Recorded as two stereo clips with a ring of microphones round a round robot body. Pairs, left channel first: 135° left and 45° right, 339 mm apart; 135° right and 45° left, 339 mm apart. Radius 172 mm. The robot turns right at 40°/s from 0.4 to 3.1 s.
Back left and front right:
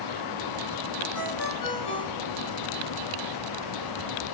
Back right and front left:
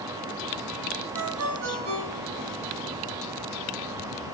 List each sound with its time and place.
1.1 s a ringtone: 80° left, 5 m; by 4.3 s 160° left, 5 m